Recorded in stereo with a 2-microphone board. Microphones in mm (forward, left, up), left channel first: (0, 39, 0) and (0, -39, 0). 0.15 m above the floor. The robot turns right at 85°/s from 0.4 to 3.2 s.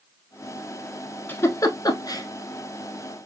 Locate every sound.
1.3 s a giggle: 25° left (ahead or behind), 0.8 m; by 2.2 s 45° left (ahead or behind), 0.8 m